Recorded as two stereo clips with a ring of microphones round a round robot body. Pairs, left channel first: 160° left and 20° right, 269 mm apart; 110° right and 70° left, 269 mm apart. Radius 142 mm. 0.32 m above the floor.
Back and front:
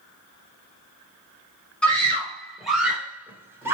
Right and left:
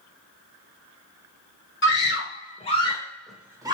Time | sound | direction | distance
1.8 | a scream | 120° right | 1.4 m